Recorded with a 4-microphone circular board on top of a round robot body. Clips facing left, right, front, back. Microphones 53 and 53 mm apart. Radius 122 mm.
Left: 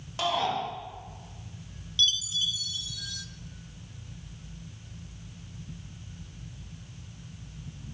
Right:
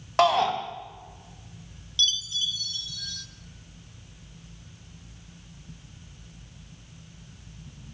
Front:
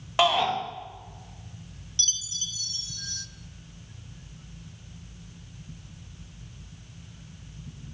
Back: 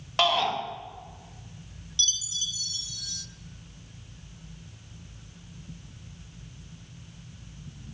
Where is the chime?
10° left, 0.9 m.